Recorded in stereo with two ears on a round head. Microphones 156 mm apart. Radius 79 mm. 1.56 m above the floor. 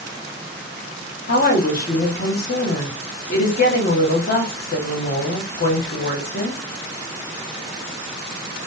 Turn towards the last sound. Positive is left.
turn(degrees=55)  # may be behind; listen again after turning